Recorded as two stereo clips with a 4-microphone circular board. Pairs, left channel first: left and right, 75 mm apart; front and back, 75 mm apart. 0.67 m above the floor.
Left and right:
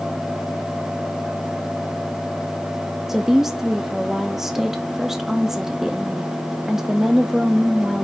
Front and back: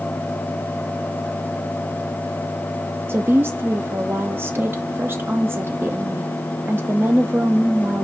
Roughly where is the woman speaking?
Behind.